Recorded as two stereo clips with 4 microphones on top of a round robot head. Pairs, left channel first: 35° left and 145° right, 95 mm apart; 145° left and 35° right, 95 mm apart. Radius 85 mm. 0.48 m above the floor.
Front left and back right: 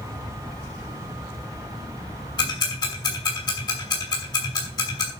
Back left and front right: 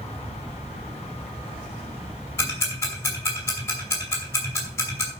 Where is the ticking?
80° left, 5.5 m.